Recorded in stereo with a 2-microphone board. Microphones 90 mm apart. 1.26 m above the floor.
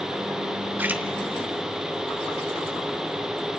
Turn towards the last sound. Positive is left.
turn(degrees=-20)  # may be behind; listen again after turning